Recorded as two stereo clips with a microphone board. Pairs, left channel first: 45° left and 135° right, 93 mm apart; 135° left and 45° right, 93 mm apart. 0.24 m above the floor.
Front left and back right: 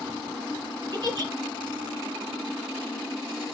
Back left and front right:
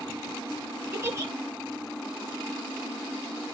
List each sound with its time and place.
0.9 s a giggle: 100° right, 2.5 m